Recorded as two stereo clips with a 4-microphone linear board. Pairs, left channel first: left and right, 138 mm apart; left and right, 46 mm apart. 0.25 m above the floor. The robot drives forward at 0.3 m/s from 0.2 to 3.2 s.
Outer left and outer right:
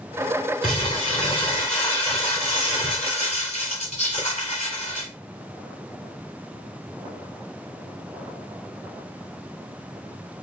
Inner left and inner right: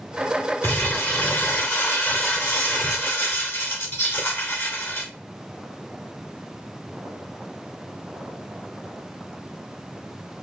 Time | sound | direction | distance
0.6 | crumpling | 45° left (ahead or behind) | 2.5 m